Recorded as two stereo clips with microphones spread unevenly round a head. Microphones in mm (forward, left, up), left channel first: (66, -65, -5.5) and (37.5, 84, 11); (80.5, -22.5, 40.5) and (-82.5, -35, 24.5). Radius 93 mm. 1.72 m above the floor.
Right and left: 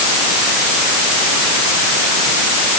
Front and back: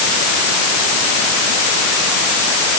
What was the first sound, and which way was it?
Only background noise.